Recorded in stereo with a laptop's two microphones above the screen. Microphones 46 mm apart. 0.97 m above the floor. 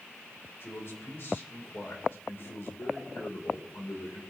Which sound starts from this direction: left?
A man speaking, at 0.6 s.